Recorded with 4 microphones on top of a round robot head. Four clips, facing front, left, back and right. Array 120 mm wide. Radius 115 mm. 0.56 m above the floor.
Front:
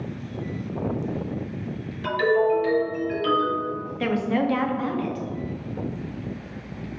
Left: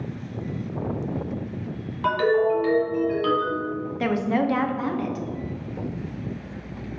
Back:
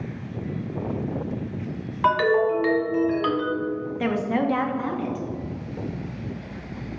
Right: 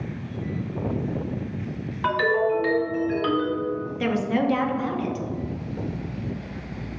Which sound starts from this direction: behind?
A ringtone, at 2.0 s.